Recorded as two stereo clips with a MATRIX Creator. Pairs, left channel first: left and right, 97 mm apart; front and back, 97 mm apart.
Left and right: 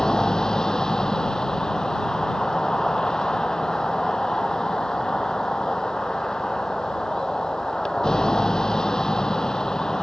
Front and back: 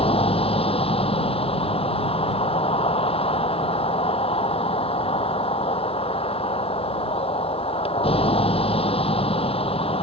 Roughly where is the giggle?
I don't hear a giggle.